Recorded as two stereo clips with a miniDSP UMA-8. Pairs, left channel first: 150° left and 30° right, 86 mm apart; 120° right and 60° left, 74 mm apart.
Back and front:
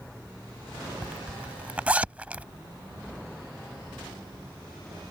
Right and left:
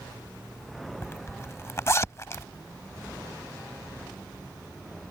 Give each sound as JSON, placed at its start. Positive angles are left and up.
{"t": 1.0, "sound": "a zipper", "azimuth_deg": -95}